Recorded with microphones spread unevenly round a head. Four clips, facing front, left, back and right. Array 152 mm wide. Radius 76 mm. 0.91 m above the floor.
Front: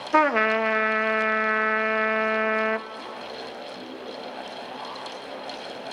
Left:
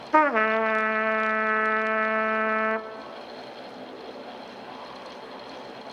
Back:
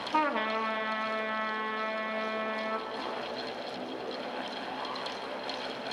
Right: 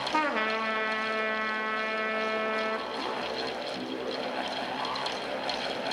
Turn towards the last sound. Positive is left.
turn(degrees=35)